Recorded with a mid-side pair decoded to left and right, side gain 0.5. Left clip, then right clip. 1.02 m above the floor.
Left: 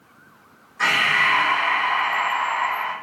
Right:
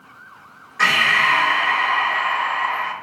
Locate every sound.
0.8 s breathing: 60° right, 0.7 m